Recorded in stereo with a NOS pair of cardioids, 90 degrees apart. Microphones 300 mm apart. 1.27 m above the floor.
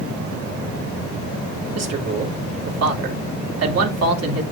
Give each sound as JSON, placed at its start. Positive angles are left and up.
{"t": 1.8, "sound": "a man speaking", "azimuth_deg": -55, "distance_m": 3.5}